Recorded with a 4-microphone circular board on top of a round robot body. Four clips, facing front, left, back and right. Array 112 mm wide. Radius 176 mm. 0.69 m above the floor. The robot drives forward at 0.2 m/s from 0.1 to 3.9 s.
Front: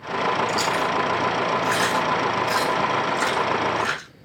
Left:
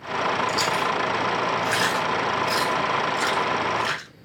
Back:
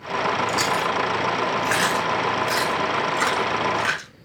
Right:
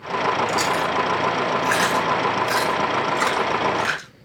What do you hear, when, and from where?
0.5 s chewing: 140° right, 5 m; by 4.1 s 145° right, 5.5 m